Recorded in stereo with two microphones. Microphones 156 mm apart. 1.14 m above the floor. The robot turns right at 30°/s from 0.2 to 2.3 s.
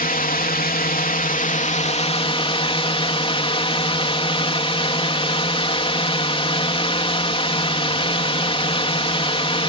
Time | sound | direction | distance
0.0 | a drone | 75° left | ?